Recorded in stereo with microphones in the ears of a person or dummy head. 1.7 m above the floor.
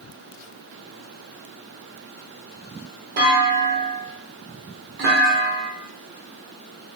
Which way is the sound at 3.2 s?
60° right (ahead or behind).